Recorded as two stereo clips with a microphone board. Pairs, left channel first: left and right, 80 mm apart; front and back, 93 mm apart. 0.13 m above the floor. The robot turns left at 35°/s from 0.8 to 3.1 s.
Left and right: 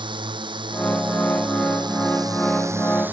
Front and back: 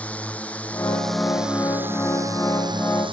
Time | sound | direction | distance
0.0 | a drone | 75° right | ?